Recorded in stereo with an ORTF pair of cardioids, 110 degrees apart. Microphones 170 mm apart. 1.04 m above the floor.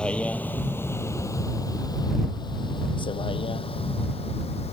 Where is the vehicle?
5° left; by 4.7 s 35° left.